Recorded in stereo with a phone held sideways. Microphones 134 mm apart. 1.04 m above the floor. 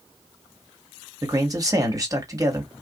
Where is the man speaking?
30° right (ahead or behind), 1.3 m.